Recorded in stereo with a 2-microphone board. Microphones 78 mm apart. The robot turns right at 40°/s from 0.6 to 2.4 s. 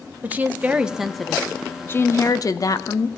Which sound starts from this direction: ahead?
A woman speaking, at 0.2 s.